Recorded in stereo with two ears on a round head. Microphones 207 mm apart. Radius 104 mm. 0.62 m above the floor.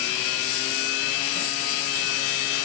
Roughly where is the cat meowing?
I don't hear a cat meowing.